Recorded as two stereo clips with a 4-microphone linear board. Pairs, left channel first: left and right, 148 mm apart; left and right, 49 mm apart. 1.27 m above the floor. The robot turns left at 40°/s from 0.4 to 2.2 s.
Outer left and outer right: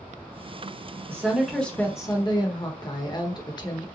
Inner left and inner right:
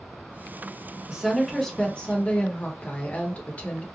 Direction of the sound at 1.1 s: 165° right.